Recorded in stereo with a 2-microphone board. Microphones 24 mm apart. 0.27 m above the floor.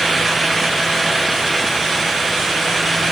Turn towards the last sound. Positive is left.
No sound to turn to.